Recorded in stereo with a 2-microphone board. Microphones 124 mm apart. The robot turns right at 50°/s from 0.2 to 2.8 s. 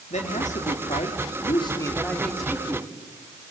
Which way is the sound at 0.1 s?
70° left.